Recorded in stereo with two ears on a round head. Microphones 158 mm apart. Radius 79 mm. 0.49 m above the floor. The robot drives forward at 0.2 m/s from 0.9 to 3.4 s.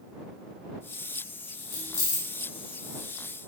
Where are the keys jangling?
50° left (ahead or behind), 0.6 m; by 2.3 s 45° left (ahead or behind), 0.6 m.